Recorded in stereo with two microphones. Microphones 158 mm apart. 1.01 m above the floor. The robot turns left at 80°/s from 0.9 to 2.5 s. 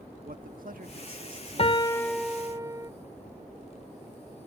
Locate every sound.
0.2 s a man speaking: 70° right; by 2.6 s 160° left
1.6 s a piano: 50° left; by 2.9 s 25° right